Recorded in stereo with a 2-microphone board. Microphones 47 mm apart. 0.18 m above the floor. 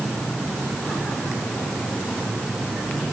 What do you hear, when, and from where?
Only background noise.